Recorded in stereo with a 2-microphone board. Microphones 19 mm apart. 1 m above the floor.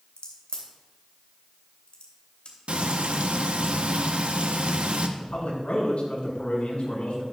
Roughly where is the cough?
I don't hear a cough.